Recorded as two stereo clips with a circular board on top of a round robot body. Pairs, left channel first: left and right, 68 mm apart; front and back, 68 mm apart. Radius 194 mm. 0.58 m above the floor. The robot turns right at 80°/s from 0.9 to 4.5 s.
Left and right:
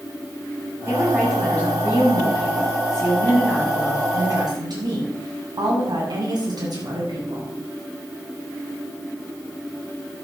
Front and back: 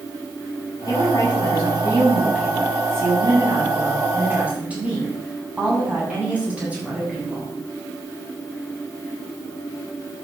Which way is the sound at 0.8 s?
35° right.